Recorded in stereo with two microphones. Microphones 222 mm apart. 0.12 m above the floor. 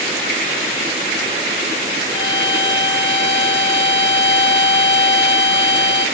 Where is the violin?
65° left (ahead or behind), 0.9 m.